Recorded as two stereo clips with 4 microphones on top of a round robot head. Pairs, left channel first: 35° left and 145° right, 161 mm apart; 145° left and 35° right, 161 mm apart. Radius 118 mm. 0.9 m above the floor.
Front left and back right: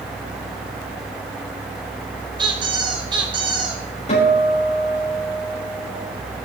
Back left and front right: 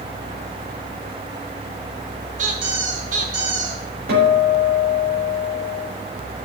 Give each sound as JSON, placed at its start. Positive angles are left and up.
{"t": 2.4, "sound": "a squeak", "azimuth_deg": -80, "distance_m": 2.0}
{"t": 4.1, "sound": "a guitar", "azimuth_deg": -15, "distance_m": 5.5}